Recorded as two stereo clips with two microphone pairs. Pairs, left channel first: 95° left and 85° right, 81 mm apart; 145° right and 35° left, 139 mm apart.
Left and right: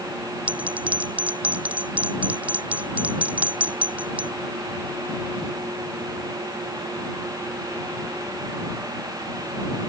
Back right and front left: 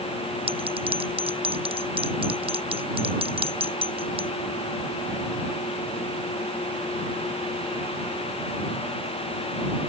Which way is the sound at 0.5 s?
10° right.